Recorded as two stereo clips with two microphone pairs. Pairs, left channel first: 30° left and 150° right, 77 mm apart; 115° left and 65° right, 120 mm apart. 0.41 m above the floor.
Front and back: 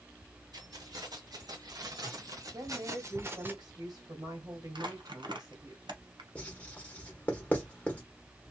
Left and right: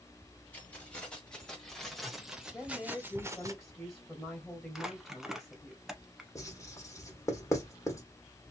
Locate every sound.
0.5 s keys jangling: 170° right, 1.8 m; by 3.5 s 105° right, 0.8 m
2.5 s a woman speaking: 165° right, 2.5 m
4.8 s crumpling: 155° right, 0.9 m
6.3 s writing: 80° left, 1.4 m